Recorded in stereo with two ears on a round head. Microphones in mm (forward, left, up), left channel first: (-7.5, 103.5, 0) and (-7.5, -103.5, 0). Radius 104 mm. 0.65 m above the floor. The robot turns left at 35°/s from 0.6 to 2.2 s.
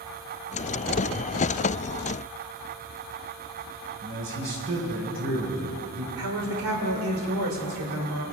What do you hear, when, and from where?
4.0 s a man speaking: 60° right (ahead or behind), 4 m
6.2 s a woman speaking: 65° right (ahead or behind), 2.5 m